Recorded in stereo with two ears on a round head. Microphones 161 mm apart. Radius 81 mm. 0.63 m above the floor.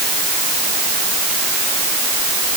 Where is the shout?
I don't hear a shout.